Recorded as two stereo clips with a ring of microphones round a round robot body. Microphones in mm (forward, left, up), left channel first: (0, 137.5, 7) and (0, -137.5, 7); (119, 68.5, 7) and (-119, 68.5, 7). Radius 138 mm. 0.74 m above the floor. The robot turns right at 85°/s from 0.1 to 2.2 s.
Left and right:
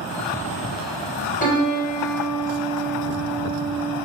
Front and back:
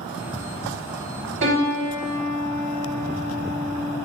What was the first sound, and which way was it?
A piano, 150° left.